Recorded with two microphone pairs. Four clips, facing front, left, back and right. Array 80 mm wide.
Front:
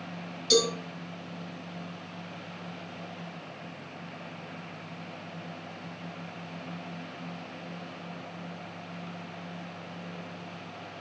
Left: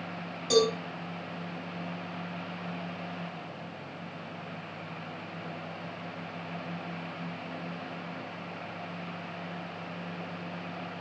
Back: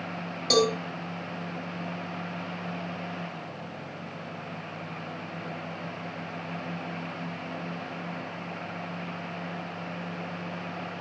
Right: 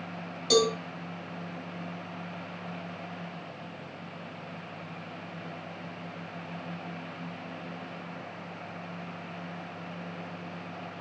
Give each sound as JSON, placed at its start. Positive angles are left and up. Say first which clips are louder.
{"t": 0.5, "sound": "a cowbell", "louder": "even, back 2 dB", "azimuth_deg": -170, "distance_m": 3.5}